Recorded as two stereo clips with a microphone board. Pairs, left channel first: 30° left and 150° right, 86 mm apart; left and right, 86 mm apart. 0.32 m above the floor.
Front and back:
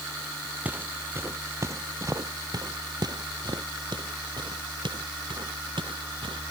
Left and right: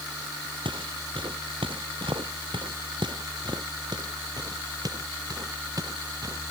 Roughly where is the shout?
I don't hear a shout.